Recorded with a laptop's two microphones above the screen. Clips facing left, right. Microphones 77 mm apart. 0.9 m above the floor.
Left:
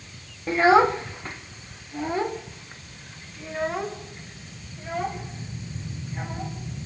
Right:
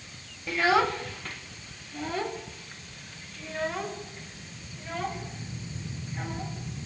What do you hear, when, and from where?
0.5 s a child speaking: 30° left (ahead or behind), 1.0 m; by 6.8 s 20° left (ahead or behind), 5 m